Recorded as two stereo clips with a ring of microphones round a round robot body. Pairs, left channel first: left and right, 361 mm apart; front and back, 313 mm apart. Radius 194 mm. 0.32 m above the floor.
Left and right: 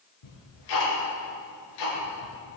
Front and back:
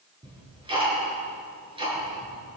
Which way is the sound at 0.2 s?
105° left.